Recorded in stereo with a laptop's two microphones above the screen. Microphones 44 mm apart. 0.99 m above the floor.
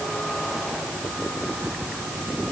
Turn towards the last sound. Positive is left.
No sound to turn to.